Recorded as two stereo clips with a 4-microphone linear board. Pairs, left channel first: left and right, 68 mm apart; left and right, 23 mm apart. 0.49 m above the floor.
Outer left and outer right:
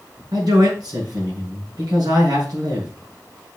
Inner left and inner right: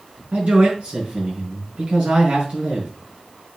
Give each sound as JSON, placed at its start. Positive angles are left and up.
{"t": 0.3, "sound": "a man speaking", "side_deg": -70, "distance_m": 5.0}